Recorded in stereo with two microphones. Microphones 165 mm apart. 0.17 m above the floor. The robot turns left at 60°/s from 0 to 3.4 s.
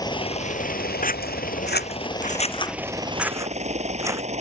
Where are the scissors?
55° left (ahead or behind); by 4.2 s 20° right (ahead or behind).